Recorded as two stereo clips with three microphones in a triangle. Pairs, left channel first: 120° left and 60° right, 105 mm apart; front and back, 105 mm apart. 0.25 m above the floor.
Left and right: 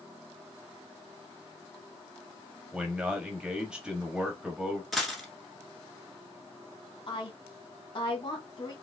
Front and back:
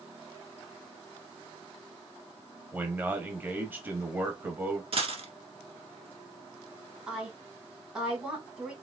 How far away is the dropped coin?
About 1.2 m.